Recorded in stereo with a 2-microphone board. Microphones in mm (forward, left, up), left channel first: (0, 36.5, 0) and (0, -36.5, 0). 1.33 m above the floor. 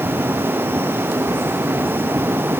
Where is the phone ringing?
No phone ringing in this recording.